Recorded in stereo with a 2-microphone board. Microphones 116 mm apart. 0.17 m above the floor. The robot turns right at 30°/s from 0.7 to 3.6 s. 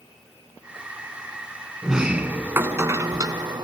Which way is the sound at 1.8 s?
175° right.